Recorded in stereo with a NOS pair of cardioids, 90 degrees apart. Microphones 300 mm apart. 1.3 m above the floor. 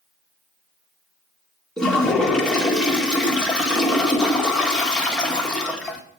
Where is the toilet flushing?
5° left, 1.3 m.